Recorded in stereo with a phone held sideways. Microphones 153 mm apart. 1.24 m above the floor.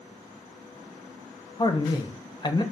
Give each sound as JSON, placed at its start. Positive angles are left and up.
{"t": 1.6, "sound": "a man speaking", "side_deg": 30, "distance_m": 0.5}